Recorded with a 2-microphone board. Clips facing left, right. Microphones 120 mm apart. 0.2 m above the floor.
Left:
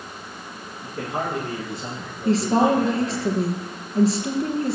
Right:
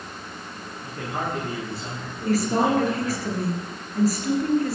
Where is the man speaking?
25° left (ahead or behind), 8.5 m; by 3.2 s 5° left (ahead or behind), 8 m.